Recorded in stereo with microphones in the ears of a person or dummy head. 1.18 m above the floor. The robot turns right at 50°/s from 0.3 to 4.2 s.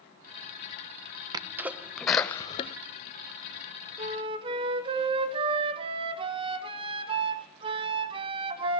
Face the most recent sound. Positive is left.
turn(degrees=-25)  # may be behind; listen again after turning